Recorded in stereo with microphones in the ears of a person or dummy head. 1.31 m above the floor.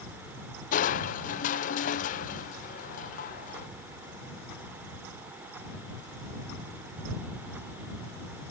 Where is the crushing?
50° left (ahead or behind).